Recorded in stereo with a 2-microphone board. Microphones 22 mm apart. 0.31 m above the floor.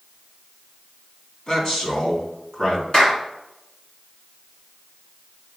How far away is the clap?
About 2.5 m.